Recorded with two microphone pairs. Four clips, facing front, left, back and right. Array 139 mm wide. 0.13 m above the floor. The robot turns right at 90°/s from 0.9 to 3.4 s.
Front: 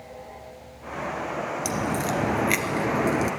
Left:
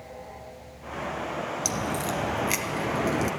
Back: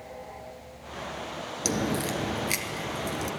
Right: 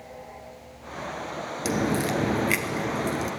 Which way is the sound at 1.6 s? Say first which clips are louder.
Right 8 dB, even; 120° right.